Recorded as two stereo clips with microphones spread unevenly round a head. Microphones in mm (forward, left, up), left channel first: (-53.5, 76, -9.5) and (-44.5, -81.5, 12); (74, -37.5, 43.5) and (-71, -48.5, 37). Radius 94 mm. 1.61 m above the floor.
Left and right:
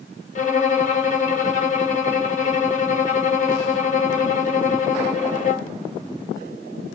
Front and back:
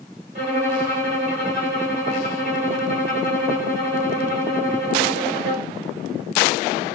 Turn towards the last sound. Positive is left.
turn(degrees=130)